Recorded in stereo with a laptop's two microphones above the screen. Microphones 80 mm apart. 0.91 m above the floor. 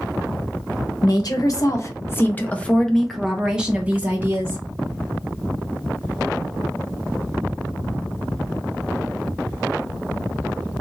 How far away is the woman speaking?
About 1.2 m.